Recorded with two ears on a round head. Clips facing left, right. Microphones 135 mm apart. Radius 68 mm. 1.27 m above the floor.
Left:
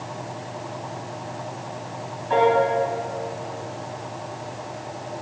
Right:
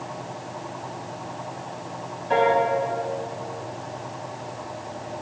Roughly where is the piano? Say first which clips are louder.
Left 2 dB; right.